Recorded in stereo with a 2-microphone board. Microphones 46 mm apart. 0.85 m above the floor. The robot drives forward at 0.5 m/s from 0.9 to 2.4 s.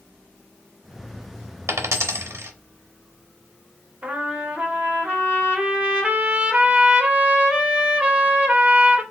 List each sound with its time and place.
1.7 s a dropped coin: 80° right, 0.8 m; by 2.5 s 60° right (ahead or behind), 0.9 m
4.0 s a trumpet: 25° right (ahead or behind), 0.8 m